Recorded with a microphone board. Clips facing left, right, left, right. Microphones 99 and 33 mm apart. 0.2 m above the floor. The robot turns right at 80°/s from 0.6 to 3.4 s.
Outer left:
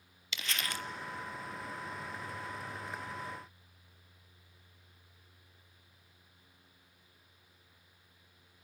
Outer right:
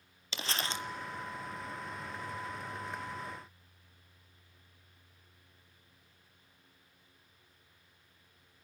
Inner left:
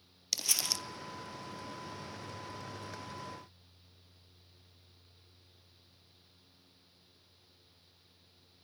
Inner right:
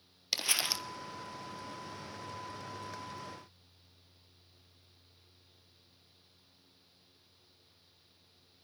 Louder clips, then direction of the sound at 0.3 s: Outer right 2 dB, inner right 2 dB; 30° right (ahead or behind).